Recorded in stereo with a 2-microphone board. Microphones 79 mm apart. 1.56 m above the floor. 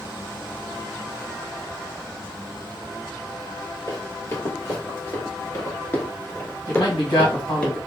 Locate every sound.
3.9 s running footsteps: 35° left (ahead or behind), 2.5 m; by 7.7 s 15° left (ahead or behind), 1.7 m
6.7 s a man speaking: 65° left (ahead or behind), 1.7 m